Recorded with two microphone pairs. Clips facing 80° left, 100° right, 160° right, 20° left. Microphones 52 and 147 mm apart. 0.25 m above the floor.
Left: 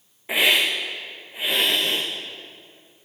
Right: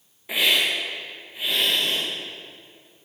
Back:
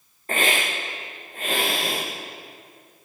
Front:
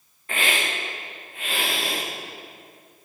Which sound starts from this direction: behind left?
A hiss, at 0.3 s.